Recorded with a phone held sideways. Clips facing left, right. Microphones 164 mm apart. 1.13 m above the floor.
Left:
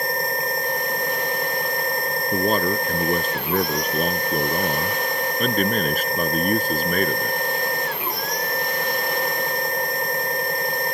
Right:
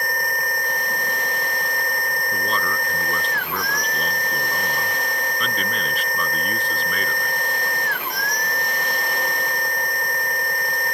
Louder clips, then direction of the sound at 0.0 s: Left 3 dB; 25° left (ahead or behind).